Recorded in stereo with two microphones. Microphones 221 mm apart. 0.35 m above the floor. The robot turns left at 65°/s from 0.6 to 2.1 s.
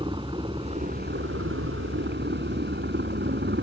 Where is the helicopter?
25° right; by 3.6 s 120° right.